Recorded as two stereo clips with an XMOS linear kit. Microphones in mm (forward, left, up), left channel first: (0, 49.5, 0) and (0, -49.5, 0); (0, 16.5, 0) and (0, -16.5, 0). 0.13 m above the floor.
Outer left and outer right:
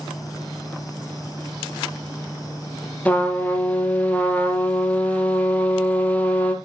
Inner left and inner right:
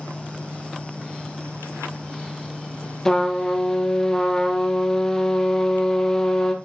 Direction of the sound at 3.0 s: 15° left (ahead or behind).